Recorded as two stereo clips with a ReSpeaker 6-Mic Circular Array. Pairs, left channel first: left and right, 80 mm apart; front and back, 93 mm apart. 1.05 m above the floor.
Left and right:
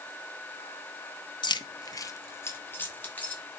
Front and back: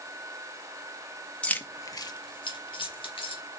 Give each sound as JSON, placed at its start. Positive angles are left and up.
{"t": 1.4, "sound": "keys jangling", "azimuth_deg": 80, "distance_m": 0.7}